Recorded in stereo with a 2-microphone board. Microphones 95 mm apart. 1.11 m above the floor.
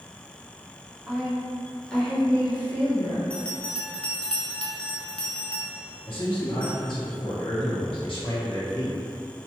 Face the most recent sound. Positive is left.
turn(degrees=60)  # may be behind; listen again after turning